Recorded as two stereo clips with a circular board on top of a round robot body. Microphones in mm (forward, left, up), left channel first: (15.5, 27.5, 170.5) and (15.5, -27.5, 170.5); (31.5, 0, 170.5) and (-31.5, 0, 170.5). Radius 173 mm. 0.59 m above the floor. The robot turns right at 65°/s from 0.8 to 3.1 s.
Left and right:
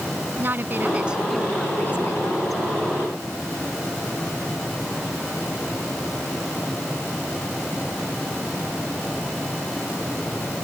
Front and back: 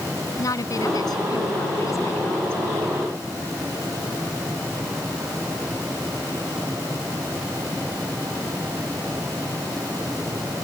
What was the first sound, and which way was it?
A woman speaking, 35° right.